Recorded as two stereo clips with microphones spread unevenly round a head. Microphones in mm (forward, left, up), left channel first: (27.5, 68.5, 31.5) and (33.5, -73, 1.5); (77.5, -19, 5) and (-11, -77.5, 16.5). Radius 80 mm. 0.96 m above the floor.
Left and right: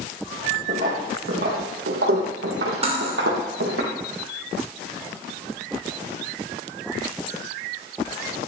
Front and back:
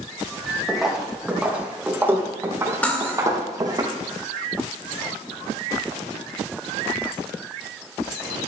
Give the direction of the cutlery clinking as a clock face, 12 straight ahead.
1 o'clock.